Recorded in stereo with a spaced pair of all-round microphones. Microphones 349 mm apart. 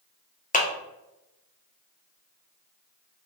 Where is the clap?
25° left (ahead or behind), 0.6 m.